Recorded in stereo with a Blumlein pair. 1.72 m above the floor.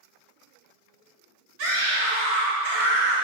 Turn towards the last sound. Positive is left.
turn(degrees=-50)